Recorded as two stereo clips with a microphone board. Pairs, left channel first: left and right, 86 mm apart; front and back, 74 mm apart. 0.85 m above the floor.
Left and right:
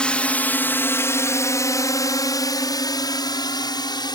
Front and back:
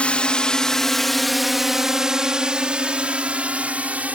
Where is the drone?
35° left; by 4.2 s 110° left.